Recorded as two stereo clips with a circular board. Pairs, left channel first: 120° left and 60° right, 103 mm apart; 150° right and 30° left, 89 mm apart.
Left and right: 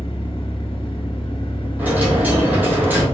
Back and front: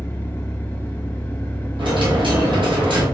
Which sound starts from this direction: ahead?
A dropped coin, at 1.8 s.